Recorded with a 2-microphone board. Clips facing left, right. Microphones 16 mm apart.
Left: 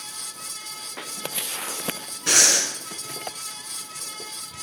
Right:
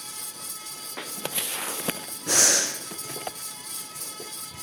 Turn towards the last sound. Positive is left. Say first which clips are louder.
# left 3 dB
turn(degrees=70)  # may be behind; listen again after turning